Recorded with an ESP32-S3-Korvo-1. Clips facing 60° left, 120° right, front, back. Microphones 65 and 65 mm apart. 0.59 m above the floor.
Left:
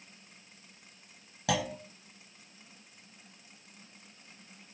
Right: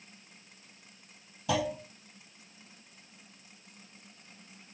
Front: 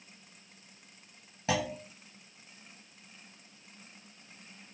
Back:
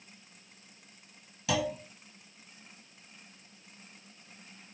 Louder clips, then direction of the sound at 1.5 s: Right 1 dB, back 1 dB; 55° left.